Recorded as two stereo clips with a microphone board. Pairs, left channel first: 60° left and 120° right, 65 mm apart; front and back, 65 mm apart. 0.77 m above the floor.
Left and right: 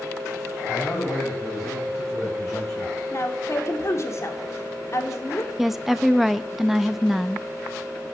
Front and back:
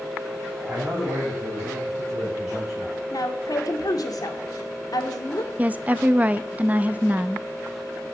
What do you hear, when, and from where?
0.7 s a man speaking: 125° left, 4.5 m; by 3.0 s 95° left, 6 m
3.1 s a woman speaking: 15° left, 1.8 m
5.6 s a woman speaking: 160° left, 0.5 m